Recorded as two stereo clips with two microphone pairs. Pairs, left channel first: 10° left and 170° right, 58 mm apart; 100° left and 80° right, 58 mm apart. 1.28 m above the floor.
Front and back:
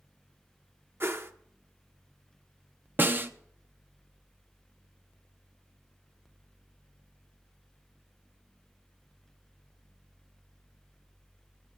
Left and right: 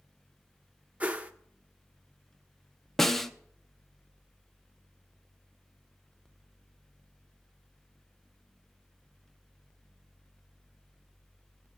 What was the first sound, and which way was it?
A whoosh, 140° right.